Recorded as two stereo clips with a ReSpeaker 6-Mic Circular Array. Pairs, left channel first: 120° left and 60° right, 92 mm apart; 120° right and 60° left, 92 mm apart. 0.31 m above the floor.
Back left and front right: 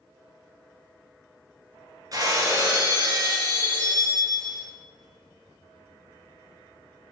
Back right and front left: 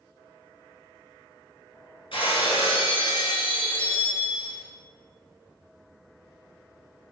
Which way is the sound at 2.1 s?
110° right.